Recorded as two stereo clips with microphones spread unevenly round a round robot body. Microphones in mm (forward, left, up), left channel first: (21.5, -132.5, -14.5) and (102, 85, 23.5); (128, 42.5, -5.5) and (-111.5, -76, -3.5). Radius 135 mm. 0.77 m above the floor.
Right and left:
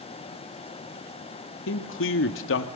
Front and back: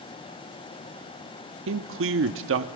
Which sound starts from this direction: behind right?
A man speaking, at 1.7 s.